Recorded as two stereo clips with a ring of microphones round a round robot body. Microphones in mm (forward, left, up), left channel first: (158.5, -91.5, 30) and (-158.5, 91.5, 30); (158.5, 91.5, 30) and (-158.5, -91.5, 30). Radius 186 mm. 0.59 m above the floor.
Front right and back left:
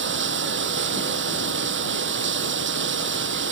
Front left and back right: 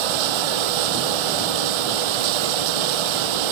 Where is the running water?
150° right.